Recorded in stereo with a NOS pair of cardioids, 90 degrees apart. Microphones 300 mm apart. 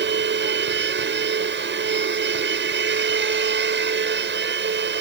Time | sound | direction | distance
0.0 | a machine running | 40° right | ?